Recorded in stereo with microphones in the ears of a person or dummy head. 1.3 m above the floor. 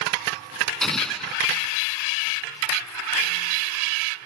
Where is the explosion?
5° left (ahead or behind).